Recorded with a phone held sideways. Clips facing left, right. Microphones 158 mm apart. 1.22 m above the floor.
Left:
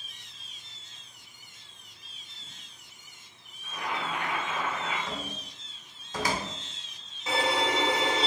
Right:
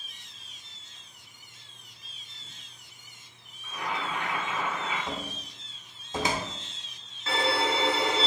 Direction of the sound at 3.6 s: 80° left.